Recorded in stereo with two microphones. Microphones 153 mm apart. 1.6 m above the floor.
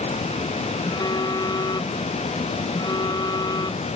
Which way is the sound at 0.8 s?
30° left (ahead or behind).